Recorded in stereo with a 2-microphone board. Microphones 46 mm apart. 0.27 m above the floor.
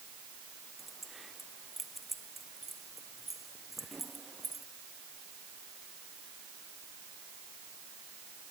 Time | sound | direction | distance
0.8 | keys jangling | 5° right (ahead or behind) | ?